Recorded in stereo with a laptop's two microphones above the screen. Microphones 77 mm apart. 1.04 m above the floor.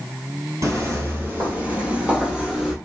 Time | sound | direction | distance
0.6 | footsteps | 40° right (ahead or behind) | 1.4 m